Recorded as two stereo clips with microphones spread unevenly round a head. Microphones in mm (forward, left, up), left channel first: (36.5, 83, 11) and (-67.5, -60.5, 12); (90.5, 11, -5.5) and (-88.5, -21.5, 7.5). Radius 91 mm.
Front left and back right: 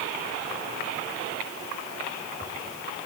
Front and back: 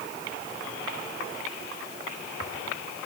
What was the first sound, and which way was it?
Only background noise.